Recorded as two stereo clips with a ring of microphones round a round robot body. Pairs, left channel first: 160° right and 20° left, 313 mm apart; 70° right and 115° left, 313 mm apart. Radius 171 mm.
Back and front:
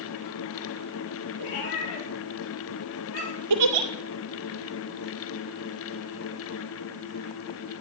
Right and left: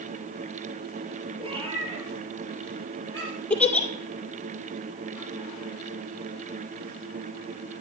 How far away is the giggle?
About 2.0 m.